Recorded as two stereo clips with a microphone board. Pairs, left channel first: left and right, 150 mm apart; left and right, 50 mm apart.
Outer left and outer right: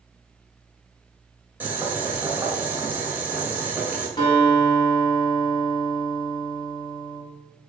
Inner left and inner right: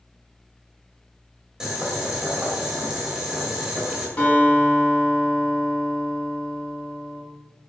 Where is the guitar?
30° left (ahead or behind), 3 m.